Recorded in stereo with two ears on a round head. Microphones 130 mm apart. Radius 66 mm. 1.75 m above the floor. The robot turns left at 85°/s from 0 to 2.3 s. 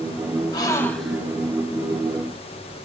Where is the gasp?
45° left, 1.2 m; by 1.3 s 20° right, 1.2 m.